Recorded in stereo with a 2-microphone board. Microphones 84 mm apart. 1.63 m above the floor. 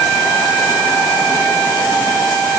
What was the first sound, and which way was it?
Only background noise.